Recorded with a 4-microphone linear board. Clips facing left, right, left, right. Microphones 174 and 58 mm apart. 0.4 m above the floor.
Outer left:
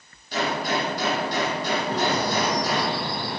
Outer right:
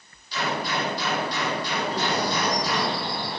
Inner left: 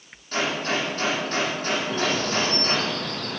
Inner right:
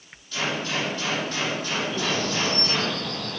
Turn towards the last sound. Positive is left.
turn(degrees=70)  # may be behind; listen again after turning